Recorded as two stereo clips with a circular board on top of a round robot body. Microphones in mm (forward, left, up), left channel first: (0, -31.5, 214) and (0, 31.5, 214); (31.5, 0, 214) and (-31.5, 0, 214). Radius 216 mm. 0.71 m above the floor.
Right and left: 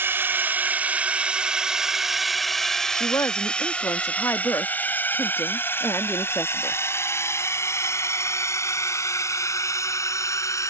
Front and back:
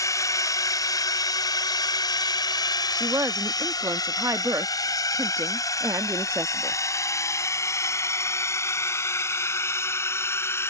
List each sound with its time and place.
0.0 s a drone: 35° left; by 10.7 s 55° right
2.9 s a woman speaking: 135° right